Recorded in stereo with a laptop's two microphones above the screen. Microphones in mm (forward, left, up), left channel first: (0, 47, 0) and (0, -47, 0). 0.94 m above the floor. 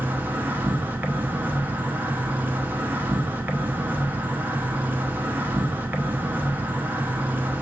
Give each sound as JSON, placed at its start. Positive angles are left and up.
{"t": 0.0, "sound": "an insect", "side_deg": -20, "distance_m": 0.7}